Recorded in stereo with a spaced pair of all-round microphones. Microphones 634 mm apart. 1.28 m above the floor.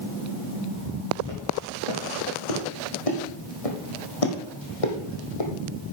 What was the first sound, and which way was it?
Footsteps, 55° left (ahead or behind).